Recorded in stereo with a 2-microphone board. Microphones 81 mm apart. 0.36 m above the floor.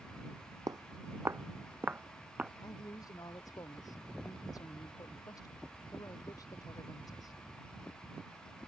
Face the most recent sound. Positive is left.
turn(degrees=45)  # may be behind; listen again after turning